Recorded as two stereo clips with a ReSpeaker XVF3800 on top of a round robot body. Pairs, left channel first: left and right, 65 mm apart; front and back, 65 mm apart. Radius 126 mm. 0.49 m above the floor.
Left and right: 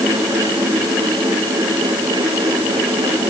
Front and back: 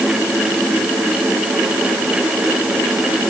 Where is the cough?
No cough in this recording.